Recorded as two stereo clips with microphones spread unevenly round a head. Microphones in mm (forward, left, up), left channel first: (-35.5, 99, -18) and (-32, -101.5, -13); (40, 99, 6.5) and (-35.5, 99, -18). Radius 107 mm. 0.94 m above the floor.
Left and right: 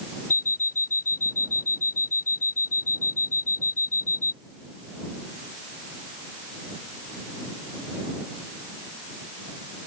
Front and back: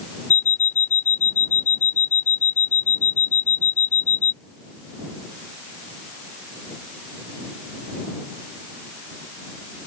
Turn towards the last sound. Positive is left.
turn(degrees=40)